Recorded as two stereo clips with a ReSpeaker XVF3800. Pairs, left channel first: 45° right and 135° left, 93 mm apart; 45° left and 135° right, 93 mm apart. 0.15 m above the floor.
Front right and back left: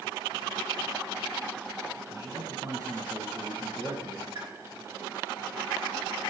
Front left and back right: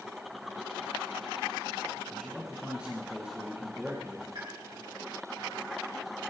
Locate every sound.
2.1 s a man speaking: 155° left, 2 m
4.3 s a pop: 170° right, 5.5 m